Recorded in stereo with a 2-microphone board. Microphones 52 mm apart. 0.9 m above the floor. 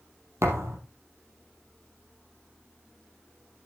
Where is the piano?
I don't hear a piano.